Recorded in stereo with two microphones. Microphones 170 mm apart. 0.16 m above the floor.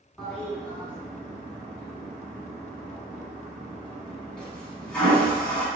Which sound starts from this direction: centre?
A toilet flushing, at 0.2 s.